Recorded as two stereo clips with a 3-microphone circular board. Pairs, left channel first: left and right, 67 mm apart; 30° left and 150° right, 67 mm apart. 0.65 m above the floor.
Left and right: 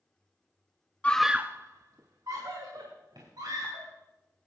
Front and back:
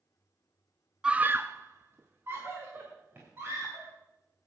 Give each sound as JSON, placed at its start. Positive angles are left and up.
{"t": 1.0, "sound": "a scream", "azimuth_deg": 145, "distance_m": 0.6}